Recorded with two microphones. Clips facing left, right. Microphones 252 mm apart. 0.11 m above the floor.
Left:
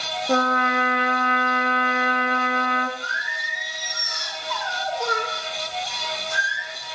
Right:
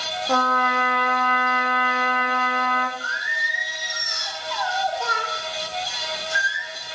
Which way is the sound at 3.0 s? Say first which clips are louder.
Even; 55° left (ahead or behind).